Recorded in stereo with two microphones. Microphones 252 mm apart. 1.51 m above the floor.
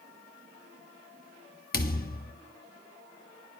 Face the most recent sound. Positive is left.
turn(degrees=35)  # may be behind; listen again after turning